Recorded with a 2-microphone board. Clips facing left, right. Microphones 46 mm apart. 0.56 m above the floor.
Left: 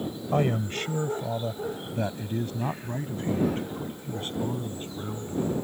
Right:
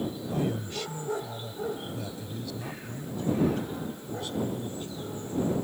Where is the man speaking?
50° left (ahead or behind); by 5.5 s 40° left (ahead or behind).